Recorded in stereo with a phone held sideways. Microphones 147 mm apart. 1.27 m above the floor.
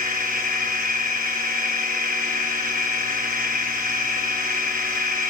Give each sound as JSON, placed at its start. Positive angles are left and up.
{"t": 0.0, "sound": "a machine running", "side_deg": -70, "distance_m": 8.5}